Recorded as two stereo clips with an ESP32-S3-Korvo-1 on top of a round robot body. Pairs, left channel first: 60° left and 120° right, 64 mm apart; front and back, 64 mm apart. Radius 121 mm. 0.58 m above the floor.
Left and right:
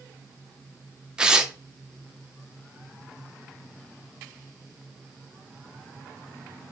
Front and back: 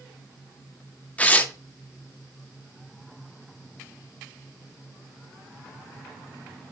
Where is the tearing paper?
50° right, 0.6 m.